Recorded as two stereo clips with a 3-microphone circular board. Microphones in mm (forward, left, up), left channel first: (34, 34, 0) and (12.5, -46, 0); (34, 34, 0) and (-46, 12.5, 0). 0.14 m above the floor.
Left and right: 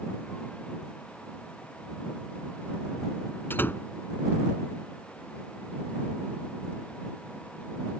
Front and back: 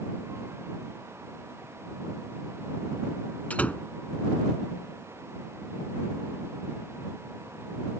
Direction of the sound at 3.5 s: 65° left.